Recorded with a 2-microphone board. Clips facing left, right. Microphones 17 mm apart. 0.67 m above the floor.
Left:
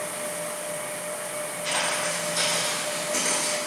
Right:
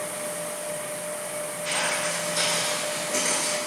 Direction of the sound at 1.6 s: 60° left (ahead or behind).